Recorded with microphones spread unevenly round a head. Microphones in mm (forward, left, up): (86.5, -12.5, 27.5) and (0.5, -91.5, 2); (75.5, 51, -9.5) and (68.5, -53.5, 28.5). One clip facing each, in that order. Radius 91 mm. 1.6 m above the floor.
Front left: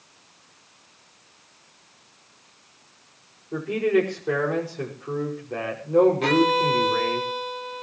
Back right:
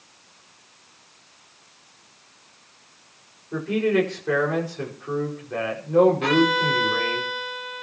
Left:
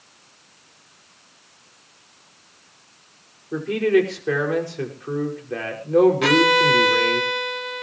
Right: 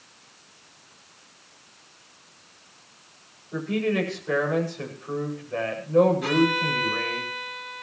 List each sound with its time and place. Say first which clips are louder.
3.5 s a man speaking: even, left 7 dB; 120° left, 5.5 m
6.2 s a violin: even, left 5 dB; 100° left, 1.0 m